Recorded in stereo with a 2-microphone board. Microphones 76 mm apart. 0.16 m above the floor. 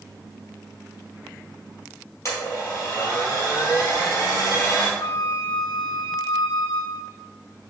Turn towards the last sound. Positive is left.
turn(degrees=75)  # may be behind; listen again after turning